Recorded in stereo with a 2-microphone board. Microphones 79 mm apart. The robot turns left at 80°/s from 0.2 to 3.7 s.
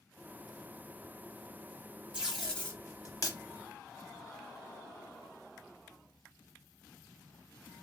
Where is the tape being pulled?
15° right (ahead or behind), 1.4 m; by 3.4 s 55° left (ahead or behind), 1.4 m.